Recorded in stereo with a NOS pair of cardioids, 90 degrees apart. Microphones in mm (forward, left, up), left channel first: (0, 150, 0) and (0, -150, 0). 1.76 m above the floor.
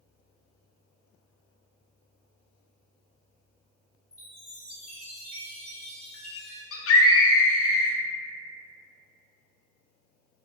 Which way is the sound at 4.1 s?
50° left.